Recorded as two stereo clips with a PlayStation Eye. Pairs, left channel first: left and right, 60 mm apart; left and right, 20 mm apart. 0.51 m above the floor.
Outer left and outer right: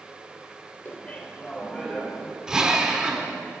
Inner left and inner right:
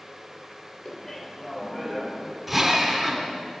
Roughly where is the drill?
Centre.